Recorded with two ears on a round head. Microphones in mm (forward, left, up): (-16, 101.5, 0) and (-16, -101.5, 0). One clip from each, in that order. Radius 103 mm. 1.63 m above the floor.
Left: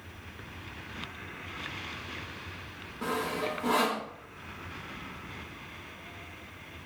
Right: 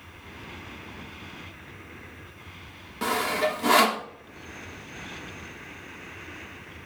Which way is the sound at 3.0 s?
65° right (ahead or behind).